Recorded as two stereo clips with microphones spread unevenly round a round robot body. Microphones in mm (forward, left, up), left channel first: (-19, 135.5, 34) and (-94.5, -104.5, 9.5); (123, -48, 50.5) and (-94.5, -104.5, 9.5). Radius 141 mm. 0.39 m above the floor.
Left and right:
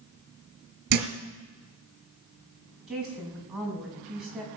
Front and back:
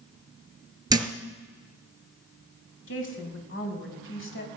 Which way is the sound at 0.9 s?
90° right.